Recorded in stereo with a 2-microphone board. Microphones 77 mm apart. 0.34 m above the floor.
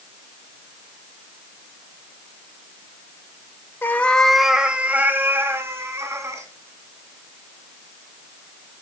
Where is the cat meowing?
30° left (ahead or behind), 0.7 m; by 6.5 s 40° right (ahead or behind), 2 m.